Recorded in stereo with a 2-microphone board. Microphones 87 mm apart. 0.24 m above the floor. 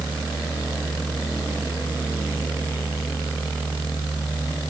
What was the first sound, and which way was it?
Only background noise.